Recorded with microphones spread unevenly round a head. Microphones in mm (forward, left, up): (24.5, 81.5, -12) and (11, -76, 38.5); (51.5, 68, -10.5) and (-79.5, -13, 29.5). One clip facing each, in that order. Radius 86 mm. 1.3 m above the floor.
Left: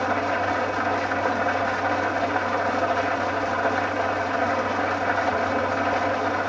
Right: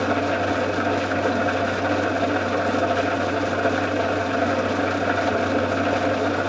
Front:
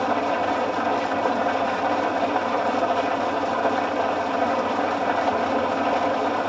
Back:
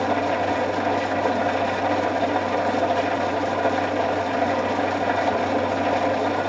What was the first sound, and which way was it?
An engine running, 80° right.